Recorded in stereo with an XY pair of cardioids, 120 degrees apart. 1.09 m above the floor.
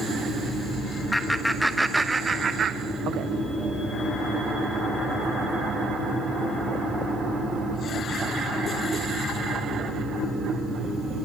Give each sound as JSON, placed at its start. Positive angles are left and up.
{"t": 1.1, "sound": "laughter", "azimuth_deg": 10, "distance_m": 1.3}